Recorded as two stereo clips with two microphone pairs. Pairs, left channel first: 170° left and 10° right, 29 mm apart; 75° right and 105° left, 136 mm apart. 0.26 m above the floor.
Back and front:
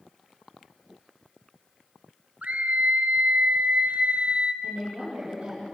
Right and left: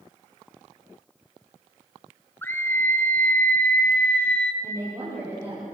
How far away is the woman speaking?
About 9 m.